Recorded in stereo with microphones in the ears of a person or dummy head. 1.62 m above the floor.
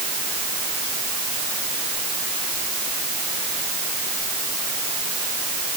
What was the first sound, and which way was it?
Only background noise.